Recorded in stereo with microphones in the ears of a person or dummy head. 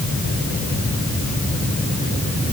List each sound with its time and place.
Only background noise.